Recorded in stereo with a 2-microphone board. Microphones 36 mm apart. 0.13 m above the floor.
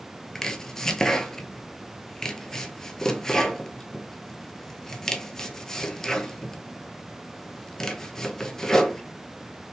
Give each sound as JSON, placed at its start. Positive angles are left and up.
{"t": 0.3, "sound": "chopping", "side_deg": 15, "distance_m": 0.5}